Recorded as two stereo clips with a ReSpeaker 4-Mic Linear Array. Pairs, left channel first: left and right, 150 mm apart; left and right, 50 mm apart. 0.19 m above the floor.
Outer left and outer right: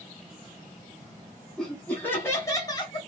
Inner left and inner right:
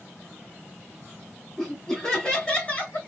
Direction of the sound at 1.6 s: Centre (ahead or behind).